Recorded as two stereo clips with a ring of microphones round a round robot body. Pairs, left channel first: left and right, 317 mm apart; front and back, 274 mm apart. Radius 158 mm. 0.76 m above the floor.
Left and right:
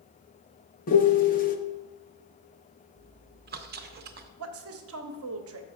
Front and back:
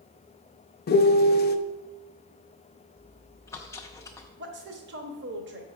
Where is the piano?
35° left, 0.6 m.